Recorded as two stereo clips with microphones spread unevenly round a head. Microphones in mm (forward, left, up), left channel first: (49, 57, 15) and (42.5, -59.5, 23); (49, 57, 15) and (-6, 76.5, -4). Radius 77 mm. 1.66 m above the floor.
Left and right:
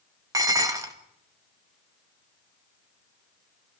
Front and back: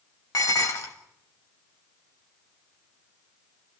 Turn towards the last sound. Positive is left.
turn(degrees=-35)